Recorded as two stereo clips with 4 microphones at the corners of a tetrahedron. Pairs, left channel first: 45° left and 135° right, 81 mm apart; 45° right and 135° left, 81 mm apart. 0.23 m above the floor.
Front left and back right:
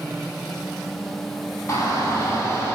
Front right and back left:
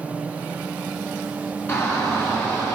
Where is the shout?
5° left, 2.5 m.